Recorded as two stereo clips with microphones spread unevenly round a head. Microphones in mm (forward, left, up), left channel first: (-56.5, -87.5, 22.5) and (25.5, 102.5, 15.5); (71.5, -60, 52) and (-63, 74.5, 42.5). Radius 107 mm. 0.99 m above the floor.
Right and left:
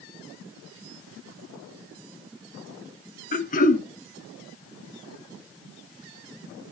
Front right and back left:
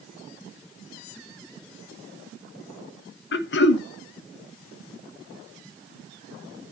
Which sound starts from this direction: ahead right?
Throat clearing, at 3.3 s.